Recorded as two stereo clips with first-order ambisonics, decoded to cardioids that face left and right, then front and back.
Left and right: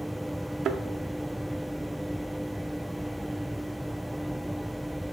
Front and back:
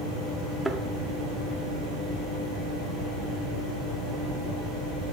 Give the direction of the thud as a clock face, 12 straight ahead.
3 o'clock.